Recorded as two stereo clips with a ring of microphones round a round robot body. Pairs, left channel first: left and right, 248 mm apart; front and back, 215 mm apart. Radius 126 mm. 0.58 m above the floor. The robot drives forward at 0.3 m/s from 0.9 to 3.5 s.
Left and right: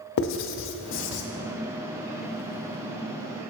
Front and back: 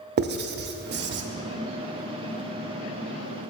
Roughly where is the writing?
Behind left.